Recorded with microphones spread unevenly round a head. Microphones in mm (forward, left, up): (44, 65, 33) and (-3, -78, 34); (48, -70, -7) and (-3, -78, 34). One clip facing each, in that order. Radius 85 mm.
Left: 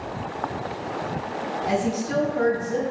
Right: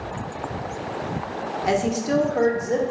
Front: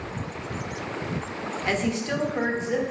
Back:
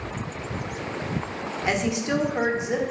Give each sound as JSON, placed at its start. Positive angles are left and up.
{"t": 1.6, "sound": "a woman speaking", "azimuth_deg": -110, "distance_m": 0.5}